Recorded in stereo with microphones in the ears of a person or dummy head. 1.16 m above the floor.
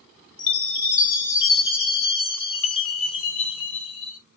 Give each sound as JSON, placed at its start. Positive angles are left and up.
{"t": 0.4, "sound": "a chime", "side_deg": 50, "distance_m": 1.1}